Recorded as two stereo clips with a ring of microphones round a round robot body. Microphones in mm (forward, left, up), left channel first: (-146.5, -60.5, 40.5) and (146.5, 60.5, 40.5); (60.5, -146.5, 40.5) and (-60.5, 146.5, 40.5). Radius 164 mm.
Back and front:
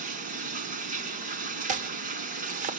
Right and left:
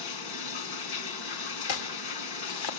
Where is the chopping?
45° right, 2 m.